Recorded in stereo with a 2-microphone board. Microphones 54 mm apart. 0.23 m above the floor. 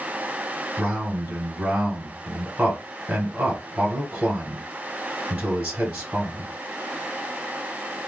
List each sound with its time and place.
0.8 s a man speaking: 25° right (ahead or behind), 1.8 m